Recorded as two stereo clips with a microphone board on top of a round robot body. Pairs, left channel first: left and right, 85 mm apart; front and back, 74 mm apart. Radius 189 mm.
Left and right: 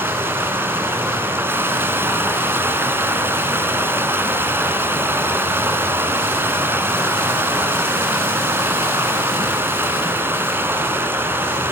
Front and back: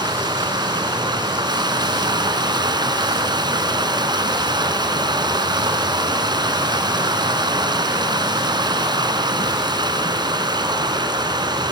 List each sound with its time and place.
0.0 s running water: 155° right, 4 m